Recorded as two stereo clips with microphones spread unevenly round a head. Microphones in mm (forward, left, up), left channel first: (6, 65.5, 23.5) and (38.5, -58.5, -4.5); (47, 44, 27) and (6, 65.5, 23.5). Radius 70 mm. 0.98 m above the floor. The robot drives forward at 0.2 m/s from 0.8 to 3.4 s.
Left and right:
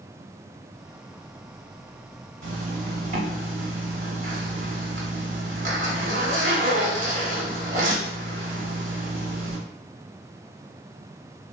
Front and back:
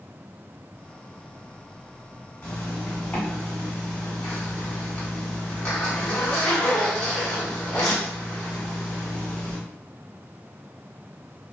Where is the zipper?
75° right, 1.0 m; by 9.6 s 90° right, 0.9 m.